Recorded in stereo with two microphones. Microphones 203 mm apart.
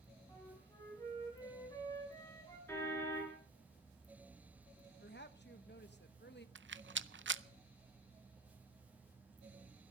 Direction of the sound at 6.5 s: 65° right (ahead or behind).